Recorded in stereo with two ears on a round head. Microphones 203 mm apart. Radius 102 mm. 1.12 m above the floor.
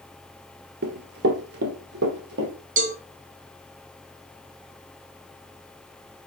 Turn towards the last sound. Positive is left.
turn(degrees=-35)  # may be behind; listen again after turning